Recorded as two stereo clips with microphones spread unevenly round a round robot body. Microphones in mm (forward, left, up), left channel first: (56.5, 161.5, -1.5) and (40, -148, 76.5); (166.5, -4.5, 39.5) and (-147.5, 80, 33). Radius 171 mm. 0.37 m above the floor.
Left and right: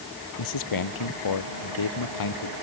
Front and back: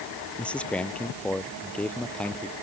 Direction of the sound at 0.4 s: 70° left.